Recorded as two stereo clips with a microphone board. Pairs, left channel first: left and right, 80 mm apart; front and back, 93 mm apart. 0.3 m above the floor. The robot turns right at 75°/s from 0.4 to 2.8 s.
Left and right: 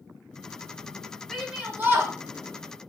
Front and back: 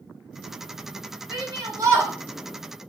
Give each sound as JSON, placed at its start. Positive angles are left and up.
{"t": 1.3, "sound": "a shout", "azimuth_deg": 175, "distance_m": 1.4}